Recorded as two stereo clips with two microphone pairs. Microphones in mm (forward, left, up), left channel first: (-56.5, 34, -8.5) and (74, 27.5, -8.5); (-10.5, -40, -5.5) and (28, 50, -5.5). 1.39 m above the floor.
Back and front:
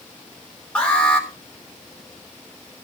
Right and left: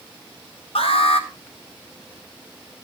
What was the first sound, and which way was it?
An alarm, 100° right.